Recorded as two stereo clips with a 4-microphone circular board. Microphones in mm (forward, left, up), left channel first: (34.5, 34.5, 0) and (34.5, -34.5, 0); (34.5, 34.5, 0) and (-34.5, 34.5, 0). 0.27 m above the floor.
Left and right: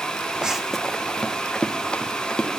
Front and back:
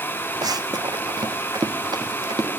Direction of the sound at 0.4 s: 170° right.